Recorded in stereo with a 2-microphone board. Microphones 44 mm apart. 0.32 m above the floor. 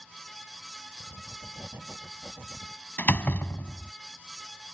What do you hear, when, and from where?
1.0 s writing: 65° right (ahead or behind)
3.0 s a door slam: 45° left (ahead or behind)